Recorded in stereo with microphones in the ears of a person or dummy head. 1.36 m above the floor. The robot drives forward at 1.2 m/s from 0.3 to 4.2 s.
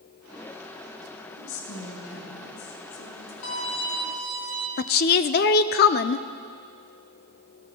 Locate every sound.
1.4 s a woman speaking: 85° left, 5 m; by 3.3 s 60° left (ahead or behind), 5.5 m
3.4 s a violin: 70° left (ahead or behind), 2 m; by 4.7 s 55° left (ahead or behind), 2.5 m
4.8 s a woman speaking: 50° left (ahead or behind), 0.5 m